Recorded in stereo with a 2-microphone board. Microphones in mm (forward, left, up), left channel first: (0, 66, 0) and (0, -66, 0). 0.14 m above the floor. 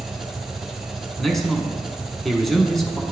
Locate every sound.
0.0 s an engine running: centre (ahead or behind), 1.4 m
1.2 s a man speaking: centre (ahead or behind), 1.0 m